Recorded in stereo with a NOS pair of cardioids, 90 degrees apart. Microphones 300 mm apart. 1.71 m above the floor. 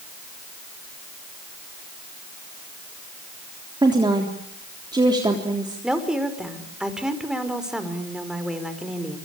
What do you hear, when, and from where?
3.8 s a woman speaking: 15° right, 3.5 m
5.8 s a woman speaking: straight ahead, 5 m